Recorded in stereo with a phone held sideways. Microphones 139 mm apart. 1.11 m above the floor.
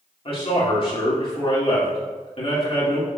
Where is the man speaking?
45° left (ahead or behind), 3 m.